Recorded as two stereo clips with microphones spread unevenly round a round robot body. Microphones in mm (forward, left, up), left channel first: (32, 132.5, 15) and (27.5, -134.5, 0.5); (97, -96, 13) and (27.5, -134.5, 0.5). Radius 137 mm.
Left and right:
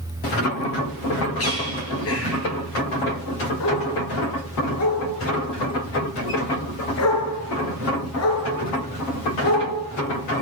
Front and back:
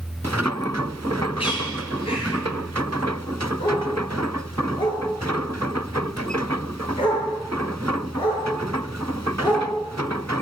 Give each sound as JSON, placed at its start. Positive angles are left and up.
{"t": 1.4, "sound": "a bird", "azimuth_deg": 50, "distance_m": 8.0}
{"t": 3.6, "sound": "a dog barking", "azimuth_deg": 55, "distance_m": 7.0}